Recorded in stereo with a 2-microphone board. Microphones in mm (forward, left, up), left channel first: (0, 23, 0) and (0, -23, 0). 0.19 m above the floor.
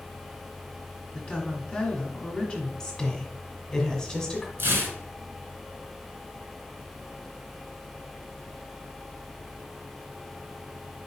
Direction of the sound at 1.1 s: 25° left (ahead or behind).